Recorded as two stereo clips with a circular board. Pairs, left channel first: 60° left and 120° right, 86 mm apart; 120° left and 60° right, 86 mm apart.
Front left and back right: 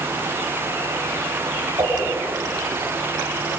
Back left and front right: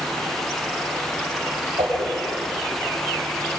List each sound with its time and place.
1.8 s a whoosh: 80° right, 6 m